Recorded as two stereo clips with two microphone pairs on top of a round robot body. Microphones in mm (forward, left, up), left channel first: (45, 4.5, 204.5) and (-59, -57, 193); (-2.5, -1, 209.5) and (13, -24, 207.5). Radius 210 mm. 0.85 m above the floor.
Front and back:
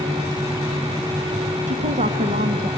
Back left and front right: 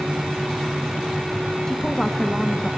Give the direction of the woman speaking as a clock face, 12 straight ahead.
5 o'clock.